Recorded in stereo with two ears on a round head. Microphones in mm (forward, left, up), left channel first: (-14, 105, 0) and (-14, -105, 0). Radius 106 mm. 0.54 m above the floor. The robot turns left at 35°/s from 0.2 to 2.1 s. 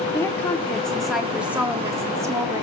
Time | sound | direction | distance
0.1 | a woman speaking | 10° left (ahead or behind) | 0.8 m